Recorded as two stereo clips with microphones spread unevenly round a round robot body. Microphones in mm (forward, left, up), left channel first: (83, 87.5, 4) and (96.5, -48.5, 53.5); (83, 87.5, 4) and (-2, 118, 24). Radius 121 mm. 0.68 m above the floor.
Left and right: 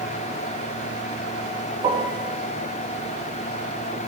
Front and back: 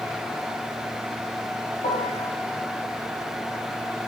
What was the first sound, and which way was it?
A piano, 30° right.